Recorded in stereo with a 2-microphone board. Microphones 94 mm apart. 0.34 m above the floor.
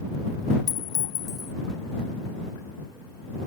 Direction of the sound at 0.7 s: 40° left (ahead or behind).